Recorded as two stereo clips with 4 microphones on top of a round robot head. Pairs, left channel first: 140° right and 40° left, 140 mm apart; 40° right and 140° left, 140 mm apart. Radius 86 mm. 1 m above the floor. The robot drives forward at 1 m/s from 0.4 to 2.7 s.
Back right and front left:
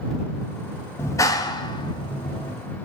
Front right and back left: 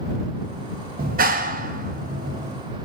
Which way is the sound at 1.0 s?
150° left.